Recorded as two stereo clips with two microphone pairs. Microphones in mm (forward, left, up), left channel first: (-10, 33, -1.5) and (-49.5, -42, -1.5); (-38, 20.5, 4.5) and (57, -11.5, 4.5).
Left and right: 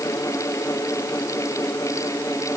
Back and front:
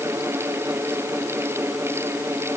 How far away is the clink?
I don't hear a clink.